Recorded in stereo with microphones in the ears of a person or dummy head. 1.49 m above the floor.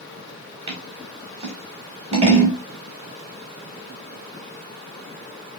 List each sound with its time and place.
0.7 s scissors: 35° right (ahead or behind), 0.9 m